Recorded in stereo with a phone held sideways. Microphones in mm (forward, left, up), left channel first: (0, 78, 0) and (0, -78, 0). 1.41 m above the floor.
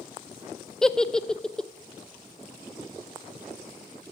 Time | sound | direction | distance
0.8 | a giggle | 5° left (ahead or behind) | 0.6 m